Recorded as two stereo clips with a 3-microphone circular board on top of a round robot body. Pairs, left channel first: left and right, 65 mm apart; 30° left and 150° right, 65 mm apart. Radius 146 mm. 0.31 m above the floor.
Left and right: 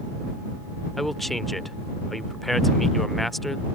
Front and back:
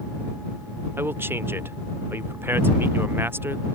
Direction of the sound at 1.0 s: 175° left.